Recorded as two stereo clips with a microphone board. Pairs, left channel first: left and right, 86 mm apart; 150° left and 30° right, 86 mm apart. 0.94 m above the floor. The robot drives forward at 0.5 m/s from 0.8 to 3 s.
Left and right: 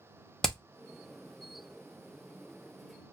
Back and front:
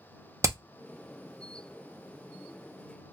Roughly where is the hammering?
Ahead.